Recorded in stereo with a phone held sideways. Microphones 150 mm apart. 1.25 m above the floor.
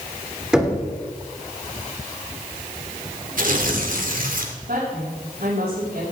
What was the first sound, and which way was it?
Knocking, 5° right (ahead or behind).